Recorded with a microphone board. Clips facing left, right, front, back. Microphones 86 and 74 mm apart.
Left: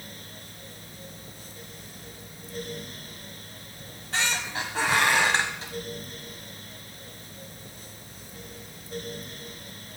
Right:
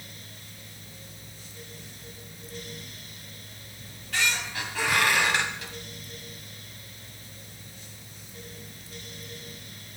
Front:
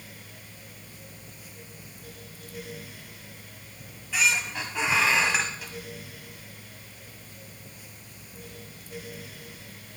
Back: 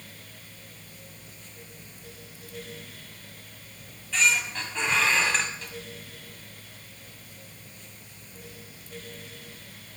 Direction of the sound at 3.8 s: 70° left.